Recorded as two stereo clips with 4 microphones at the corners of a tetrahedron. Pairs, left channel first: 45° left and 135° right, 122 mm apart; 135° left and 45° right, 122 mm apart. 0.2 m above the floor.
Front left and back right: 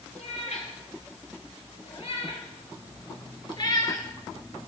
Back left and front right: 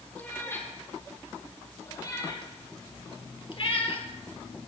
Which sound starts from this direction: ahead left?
A cat meowing, at 0.1 s.